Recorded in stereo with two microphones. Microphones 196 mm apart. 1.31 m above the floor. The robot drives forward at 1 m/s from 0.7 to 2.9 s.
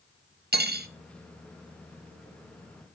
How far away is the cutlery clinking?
About 0.8 m.